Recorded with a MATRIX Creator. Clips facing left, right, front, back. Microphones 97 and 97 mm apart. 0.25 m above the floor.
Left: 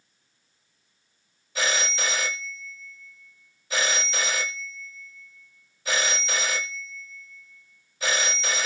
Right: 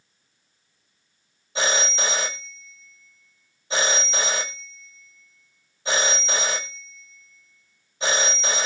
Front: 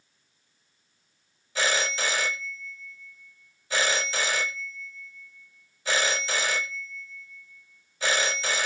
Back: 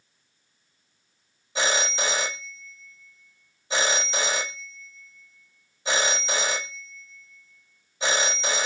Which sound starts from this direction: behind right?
A phone ringing, at 1.6 s.